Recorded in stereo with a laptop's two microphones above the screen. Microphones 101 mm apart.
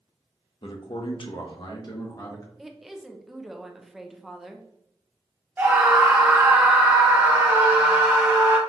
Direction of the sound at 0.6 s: 55° left (ahead or behind).